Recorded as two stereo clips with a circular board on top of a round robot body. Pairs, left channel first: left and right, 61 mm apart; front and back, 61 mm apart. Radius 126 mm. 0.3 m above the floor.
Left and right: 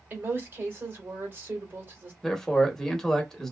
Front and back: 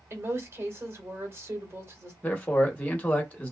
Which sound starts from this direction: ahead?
A man speaking, at 2.2 s.